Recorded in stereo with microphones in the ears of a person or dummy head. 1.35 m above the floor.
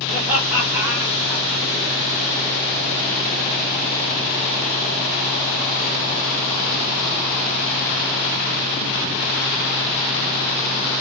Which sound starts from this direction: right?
Laughter, at 0.1 s.